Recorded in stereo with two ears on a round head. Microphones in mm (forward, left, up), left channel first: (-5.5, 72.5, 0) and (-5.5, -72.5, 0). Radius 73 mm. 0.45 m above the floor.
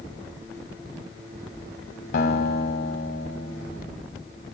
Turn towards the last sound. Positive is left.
turn(degrees=65)  # may be behind; listen again after turning